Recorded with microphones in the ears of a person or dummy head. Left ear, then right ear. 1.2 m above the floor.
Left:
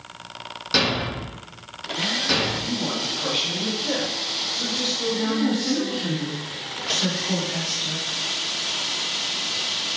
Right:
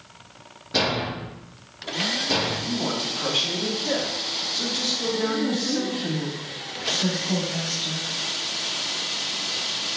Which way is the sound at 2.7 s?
10° right (ahead or behind).